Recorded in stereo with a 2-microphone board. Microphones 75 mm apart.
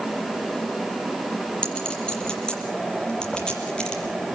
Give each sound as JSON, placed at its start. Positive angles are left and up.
{"t": 1.6, "sound": "a clink", "side_deg": 10, "distance_m": 6.0}